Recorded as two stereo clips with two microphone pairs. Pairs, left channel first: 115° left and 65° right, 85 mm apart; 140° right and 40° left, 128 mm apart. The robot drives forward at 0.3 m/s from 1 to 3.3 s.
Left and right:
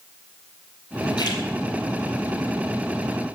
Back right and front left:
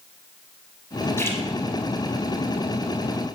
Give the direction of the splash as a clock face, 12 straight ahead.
7 o'clock.